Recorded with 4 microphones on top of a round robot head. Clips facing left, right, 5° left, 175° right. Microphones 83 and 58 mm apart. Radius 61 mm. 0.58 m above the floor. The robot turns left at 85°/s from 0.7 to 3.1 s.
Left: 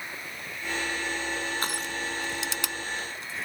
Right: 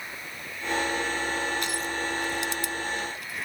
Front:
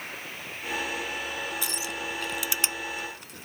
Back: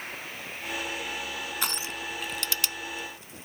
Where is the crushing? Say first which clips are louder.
Right 2 dB, even; 155° left; by 3.5 s 30° left.